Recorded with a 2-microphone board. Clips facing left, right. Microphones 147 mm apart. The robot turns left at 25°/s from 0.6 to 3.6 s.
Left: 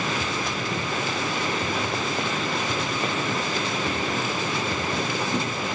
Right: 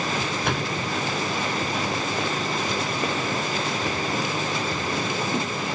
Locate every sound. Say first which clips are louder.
0.4 s a door slam: right 2 dB; 70° right (ahead or behind); by 0.8 s 65° right (ahead or behind)